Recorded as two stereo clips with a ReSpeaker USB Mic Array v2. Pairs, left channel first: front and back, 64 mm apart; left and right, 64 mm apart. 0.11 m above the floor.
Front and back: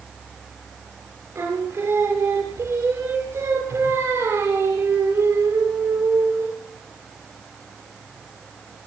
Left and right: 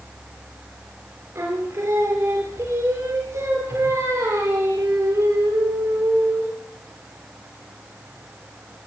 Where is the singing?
135° right, 10 m.